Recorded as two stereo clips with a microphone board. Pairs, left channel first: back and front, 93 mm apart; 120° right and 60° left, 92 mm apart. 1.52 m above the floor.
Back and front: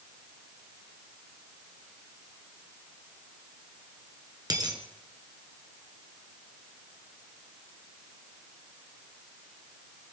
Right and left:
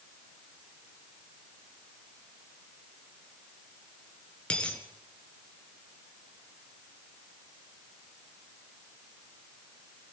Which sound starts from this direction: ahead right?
A dropped coin, at 4.5 s.